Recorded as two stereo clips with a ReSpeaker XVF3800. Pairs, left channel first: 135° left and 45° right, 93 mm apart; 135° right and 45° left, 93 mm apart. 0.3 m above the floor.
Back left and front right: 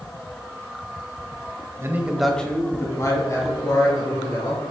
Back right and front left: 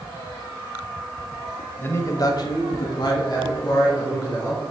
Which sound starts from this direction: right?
A man speaking, at 1.8 s.